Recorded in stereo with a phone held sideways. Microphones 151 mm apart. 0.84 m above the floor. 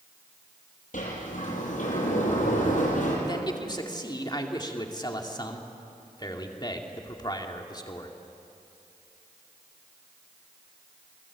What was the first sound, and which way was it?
A sliding door, 60° left (ahead or behind).